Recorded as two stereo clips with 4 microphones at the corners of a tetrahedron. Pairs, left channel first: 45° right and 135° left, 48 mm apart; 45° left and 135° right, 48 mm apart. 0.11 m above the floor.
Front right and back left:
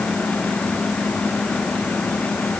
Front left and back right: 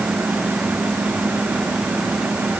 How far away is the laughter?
I don't hear laughter.